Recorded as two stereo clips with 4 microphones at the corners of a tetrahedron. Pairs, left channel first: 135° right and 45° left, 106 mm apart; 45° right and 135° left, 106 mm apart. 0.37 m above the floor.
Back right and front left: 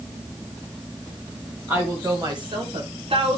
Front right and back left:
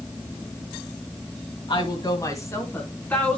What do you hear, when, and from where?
1.7 s a woman speaking: 20° right, 1.6 m; by 3.4 s 30° left, 3 m